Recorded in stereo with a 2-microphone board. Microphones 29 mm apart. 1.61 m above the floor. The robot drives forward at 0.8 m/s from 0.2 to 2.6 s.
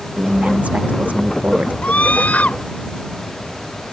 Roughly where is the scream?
Left.